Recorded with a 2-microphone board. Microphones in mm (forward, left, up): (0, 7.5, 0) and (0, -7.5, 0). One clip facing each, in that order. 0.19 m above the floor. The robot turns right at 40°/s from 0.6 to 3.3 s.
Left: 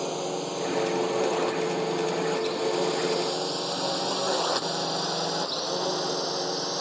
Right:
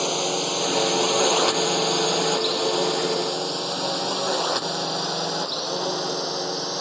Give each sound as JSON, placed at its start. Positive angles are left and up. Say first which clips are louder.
{"t": 0.0, "sound": "a drone", "louder": "right 6 dB", "side_deg": -45}